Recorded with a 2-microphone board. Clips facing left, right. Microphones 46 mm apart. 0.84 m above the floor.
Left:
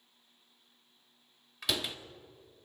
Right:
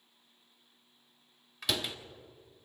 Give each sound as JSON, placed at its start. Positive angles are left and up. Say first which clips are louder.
{"t": 1.6, "sound": "a door slam", "louder": "even", "side_deg": 0, "distance_m": 1.2}